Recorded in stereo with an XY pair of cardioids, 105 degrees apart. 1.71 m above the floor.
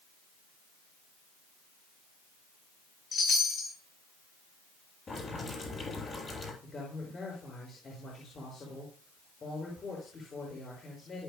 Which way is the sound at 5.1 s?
35° left.